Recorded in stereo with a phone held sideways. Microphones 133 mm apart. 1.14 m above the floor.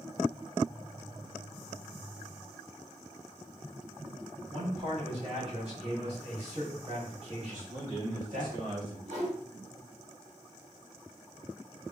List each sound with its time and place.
4.5 s a man speaking: 50° right (ahead or behind), 1.4 m
7.5 s a man speaking: 85° right, 1.3 m
9.1 s a whoosh: 65° right (ahead or behind), 1.3 m